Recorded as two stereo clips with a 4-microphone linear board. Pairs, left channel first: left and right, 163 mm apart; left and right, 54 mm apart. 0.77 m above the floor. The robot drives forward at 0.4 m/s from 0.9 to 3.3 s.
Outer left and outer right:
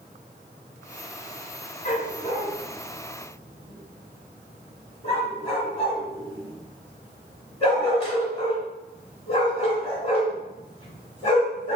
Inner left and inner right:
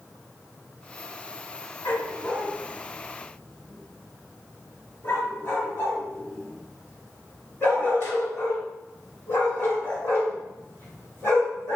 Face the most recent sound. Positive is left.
turn(degrees=35)  # may be behind; listen again after turning